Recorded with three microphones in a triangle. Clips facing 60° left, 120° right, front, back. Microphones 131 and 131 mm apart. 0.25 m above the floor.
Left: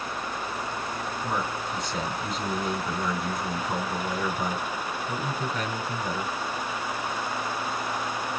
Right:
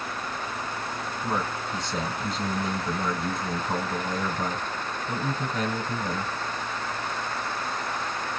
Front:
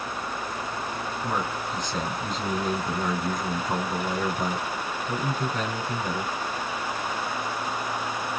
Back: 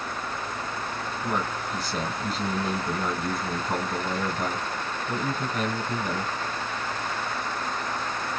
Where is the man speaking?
105° right, 1.6 m.